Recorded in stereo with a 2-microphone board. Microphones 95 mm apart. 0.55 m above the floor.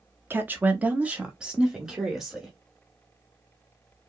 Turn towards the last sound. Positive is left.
turn(degrees=0)  # may be behind; listen again after turning